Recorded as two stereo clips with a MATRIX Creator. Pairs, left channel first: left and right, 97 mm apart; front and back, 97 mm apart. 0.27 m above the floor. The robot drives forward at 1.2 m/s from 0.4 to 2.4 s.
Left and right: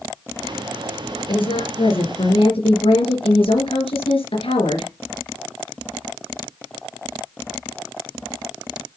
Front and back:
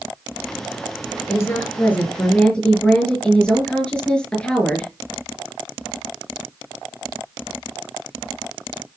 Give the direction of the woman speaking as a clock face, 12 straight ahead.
10 o'clock.